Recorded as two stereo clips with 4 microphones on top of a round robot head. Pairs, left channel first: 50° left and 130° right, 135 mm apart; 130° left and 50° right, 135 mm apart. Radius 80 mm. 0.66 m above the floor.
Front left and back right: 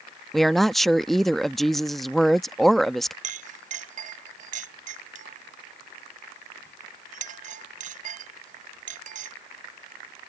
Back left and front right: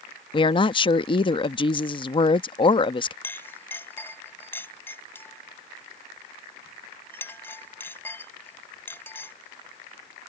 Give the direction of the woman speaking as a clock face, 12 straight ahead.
7 o'clock.